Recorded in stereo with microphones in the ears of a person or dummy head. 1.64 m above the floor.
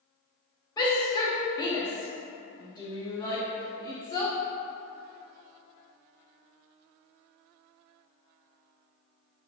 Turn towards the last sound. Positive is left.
turn(degrees=20)  # may be behind; listen again after turning